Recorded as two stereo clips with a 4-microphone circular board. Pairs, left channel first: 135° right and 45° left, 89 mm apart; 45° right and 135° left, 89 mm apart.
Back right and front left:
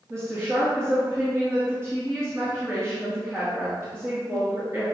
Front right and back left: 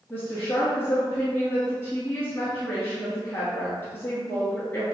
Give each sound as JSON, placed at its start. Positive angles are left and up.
{"t": 0.1, "sound": "a woman speaking", "azimuth_deg": 5, "distance_m": 1.4}